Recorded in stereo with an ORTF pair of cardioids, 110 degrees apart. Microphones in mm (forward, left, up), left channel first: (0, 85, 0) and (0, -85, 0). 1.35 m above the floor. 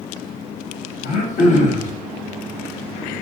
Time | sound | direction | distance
1.0 | throat clearing | 45° left | 0.6 m